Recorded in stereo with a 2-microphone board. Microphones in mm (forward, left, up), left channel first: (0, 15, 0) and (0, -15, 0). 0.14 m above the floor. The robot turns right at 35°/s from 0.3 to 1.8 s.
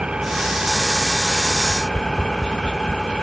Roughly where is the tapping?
Left.